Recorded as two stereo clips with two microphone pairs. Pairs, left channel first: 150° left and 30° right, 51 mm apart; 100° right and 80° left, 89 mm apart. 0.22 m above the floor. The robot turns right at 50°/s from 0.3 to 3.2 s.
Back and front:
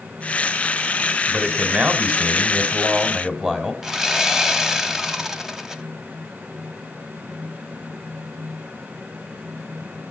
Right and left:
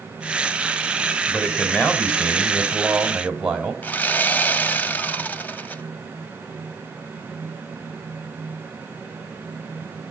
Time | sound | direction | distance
1.3 | a man speaking | 75° right | 1.5 m
3.8 | sawing | 90° right | 0.8 m